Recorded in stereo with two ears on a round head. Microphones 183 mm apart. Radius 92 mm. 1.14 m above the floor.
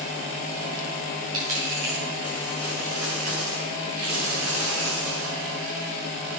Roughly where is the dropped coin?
Right.